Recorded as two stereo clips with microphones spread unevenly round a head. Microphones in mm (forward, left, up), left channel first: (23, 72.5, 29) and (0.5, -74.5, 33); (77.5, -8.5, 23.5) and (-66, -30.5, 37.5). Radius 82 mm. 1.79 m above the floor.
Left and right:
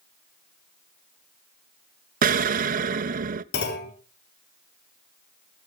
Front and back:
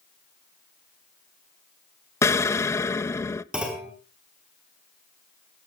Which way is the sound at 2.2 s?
65° right.